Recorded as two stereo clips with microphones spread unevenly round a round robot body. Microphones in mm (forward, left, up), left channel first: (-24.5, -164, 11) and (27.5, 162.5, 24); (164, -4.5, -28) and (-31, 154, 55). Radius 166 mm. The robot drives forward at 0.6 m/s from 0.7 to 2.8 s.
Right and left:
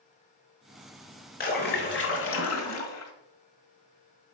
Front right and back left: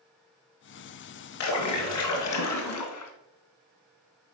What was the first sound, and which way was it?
A splash, 35° right.